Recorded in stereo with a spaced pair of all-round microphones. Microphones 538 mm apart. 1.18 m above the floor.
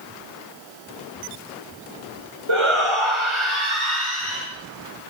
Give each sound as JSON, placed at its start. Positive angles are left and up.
{"t": 2.5, "sound": "a shout", "side_deg": -60, "distance_m": 5.0}